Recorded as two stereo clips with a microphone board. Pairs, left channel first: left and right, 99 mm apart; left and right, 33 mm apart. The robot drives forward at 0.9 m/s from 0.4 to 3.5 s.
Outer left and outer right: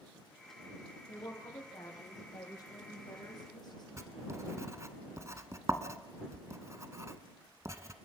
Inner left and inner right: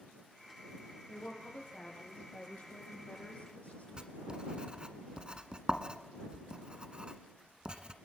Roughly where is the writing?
Right.